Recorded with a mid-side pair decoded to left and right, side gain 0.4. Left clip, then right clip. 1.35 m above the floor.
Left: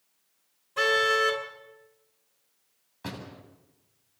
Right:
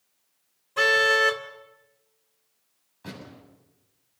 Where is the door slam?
55° left, 8 m.